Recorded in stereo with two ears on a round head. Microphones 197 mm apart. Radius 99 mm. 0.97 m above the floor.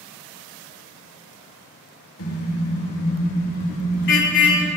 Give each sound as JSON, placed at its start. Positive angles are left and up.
{"t": 2.2, "sound": "a car horn", "side_deg": 65, "distance_m": 3.5}